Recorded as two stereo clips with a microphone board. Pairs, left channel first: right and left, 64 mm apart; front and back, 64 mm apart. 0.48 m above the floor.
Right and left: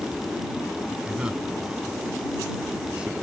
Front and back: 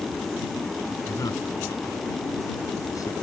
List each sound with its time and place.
1.1 s a man speaking: 15° left